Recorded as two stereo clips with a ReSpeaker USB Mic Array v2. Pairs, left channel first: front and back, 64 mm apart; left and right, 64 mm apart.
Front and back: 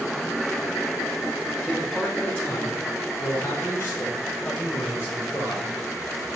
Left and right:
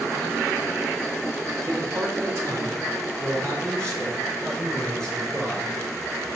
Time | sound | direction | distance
1.6 | a man speaking | 75° right | 2.5 m